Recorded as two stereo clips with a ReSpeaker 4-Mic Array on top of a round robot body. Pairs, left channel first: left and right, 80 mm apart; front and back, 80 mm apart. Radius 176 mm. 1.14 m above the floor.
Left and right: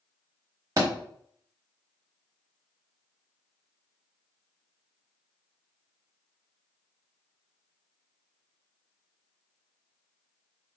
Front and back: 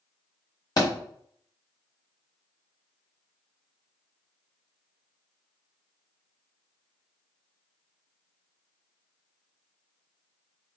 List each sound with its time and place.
0.8 s a thud: 40° right, 1.0 m